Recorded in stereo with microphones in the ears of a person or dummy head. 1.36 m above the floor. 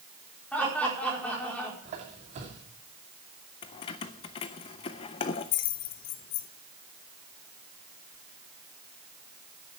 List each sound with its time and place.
0.5 s laughter: 10° left (ahead or behind), 4.5 m
1.9 s a squeak: 45° right (ahead or behind), 2.5 m
3.6 s keys jangling: 30° left (ahead or behind), 0.5 m